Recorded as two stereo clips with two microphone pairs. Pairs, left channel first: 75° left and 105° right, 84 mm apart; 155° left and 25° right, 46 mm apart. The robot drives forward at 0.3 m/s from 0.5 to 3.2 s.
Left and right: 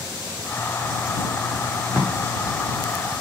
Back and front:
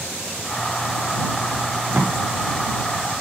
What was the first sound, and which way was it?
Tape being pulled, 10° left.